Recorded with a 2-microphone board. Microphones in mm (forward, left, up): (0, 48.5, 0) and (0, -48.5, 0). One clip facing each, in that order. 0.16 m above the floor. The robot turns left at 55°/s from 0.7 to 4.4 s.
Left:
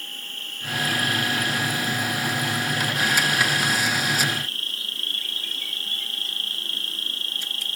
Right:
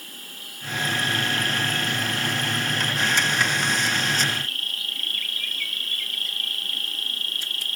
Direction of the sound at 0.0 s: 10° right.